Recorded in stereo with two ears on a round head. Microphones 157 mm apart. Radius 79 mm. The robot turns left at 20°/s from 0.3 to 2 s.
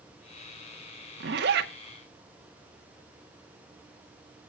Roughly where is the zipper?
Right.